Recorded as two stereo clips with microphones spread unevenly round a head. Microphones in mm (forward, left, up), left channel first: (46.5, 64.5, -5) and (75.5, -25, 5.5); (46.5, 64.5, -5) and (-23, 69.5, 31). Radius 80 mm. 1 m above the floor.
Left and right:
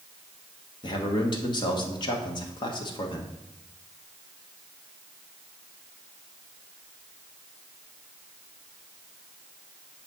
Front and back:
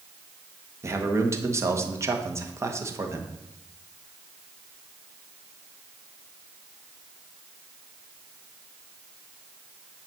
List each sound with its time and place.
0.8 s a man speaking: 110° left, 1.3 m